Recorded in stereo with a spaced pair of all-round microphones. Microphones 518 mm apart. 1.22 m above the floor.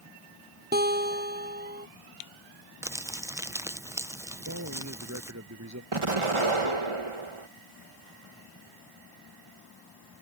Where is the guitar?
20° right (ahead or behind).